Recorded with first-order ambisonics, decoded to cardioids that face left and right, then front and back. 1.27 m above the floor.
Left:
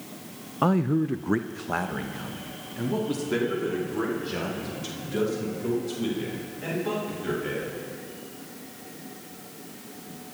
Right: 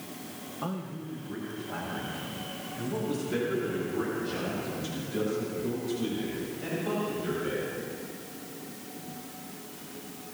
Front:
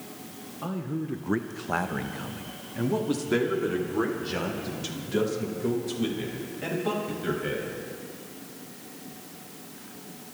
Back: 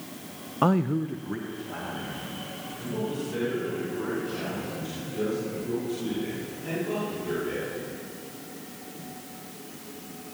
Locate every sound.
0.6 s a man speaking: 140° left, 0.6 m; by 7.8 s 15° left, 7 m